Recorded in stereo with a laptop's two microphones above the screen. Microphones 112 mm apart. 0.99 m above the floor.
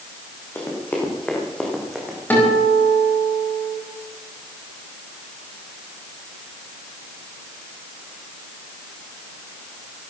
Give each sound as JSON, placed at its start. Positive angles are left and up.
{"t": 0.6, "sound": "running footsteps", "side_deg": 20, "distance_m": 4.0}
{"t": 2.3, "sound": "a guitar", "side_deg": 15, "distance_m": 4.5}